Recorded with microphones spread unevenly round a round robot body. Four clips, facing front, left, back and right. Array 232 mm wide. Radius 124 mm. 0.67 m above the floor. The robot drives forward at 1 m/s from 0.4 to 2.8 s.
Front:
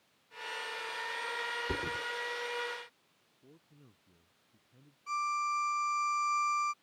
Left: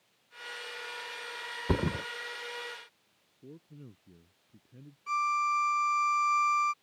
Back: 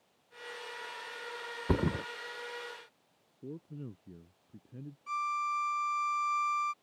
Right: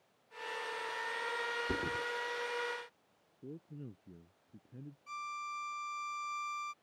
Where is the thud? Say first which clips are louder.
Left 11 dB, back 11 dB; 120° left; by 2.0 s 145° left.